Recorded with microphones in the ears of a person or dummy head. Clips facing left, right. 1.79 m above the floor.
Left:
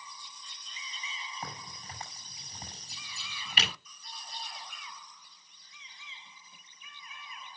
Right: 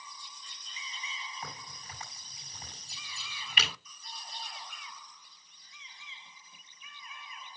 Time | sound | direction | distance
1.4 | a crack | 30° left (ahead or behind) | 7 m